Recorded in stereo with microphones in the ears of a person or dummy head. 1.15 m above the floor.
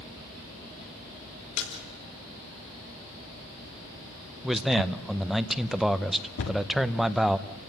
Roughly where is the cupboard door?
Left.